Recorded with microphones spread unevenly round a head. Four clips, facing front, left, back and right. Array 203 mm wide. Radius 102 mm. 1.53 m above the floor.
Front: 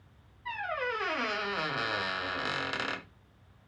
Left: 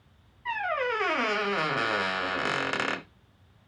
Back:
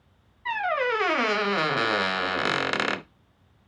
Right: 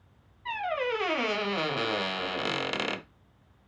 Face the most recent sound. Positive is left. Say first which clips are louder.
# left 1 dB, back 9 dB
turn(degrees=180)